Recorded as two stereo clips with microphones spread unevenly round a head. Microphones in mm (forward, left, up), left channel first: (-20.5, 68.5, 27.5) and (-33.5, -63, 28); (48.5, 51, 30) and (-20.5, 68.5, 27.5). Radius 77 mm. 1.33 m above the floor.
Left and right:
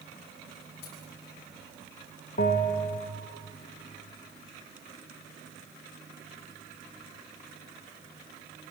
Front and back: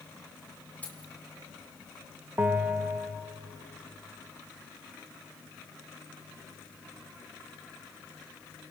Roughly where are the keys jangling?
Ahead left.